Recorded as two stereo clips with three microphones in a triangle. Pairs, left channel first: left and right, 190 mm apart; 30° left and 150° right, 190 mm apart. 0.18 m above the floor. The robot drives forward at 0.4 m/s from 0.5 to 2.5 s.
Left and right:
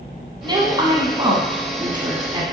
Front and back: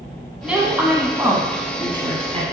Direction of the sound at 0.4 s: 75° right.